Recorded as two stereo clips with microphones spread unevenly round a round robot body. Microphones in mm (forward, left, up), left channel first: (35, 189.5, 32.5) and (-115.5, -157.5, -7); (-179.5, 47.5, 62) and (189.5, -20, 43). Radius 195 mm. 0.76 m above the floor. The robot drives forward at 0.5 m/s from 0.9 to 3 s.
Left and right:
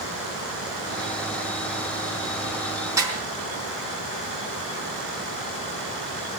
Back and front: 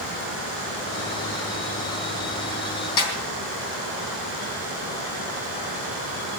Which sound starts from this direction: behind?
A snare drum, at 3.0 s.